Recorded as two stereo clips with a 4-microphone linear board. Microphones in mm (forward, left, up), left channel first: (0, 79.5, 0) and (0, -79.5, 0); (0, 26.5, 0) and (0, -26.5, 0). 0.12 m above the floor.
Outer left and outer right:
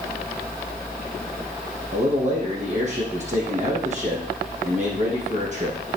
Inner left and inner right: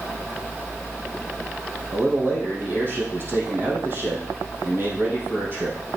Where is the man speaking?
45° right (ahead or behind), 4.5 m.